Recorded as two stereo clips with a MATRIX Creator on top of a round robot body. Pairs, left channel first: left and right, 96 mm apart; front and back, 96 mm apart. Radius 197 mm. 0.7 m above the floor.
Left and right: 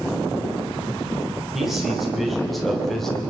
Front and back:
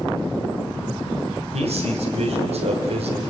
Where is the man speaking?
175° right, 4 m; by 3.2 s 175° left, 3 m.